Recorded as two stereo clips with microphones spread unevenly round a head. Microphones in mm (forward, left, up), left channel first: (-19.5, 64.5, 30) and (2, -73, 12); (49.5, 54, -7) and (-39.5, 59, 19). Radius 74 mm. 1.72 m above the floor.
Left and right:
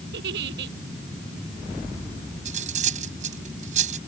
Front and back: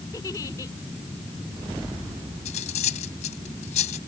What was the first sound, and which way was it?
A giggle, 75° right.